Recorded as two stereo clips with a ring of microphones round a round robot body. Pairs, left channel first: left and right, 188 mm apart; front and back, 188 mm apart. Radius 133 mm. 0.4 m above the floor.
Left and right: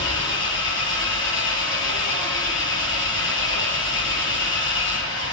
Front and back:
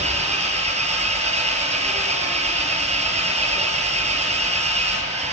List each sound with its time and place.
0.0 s an engine running: 130° left, 8 m